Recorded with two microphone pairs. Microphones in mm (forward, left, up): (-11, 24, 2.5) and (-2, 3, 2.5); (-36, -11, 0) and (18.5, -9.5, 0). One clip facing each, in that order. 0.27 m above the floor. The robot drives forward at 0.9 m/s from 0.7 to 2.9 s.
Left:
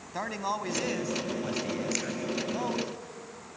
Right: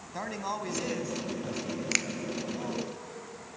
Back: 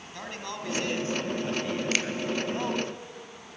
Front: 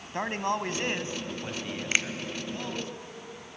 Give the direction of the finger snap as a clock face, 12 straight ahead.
2 o'clock.